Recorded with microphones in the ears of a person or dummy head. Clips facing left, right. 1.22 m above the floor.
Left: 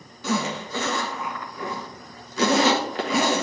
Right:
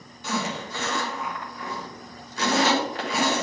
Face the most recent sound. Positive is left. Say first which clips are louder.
# left 3 dB
turn(degrees=65)  # may be behind; listen again after turning